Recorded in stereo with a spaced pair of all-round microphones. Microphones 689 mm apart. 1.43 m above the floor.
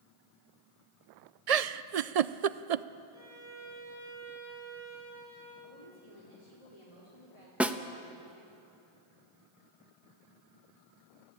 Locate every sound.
1.5 s a giggle: 65° right (ahead or behind), 0.6 m
3.1 s a violin: 5° right (ahead or behind), 8.5 m
5.6 s a woman speaking: 60° left (ahead or behind), 5 m
7.6 s a snare drum: centre (ahead or behind), 1.0 m